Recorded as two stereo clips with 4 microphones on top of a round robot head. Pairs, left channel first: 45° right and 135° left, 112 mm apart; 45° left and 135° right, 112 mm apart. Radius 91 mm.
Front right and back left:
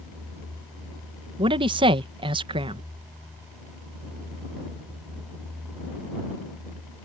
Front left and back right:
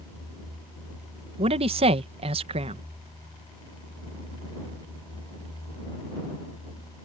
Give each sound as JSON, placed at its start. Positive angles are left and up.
{"t": 1.4, "sound": "a man speaking", "azimuth_deg": -175}